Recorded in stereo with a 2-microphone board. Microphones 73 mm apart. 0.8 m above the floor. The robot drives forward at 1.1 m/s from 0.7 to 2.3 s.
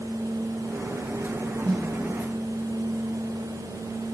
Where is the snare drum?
65° right (ahead or behind), 5 m.